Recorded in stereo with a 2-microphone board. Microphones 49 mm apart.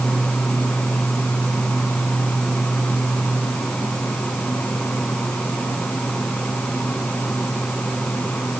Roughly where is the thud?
No thud in this recording.